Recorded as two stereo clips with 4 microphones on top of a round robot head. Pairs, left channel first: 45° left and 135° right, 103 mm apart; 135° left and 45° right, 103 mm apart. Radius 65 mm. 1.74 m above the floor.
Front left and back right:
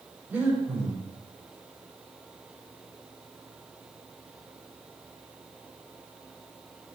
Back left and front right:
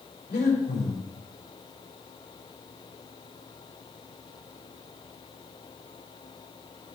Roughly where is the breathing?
Behind left.